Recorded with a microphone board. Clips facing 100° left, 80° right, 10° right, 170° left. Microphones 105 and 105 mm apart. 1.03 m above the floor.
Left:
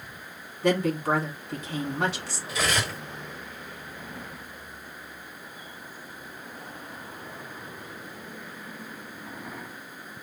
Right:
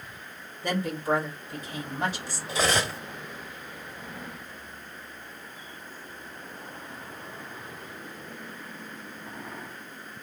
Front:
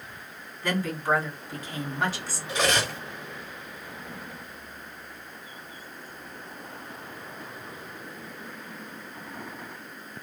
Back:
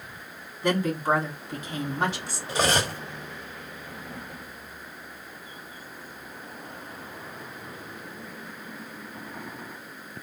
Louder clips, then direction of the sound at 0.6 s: Left 4 dB, back 3 dB; 100° left.